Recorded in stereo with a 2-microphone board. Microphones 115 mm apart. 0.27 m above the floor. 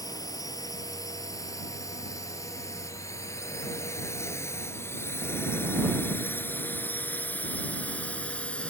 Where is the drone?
30° left (ahead or behind); by 8.7 s 10° left (ahead or behind).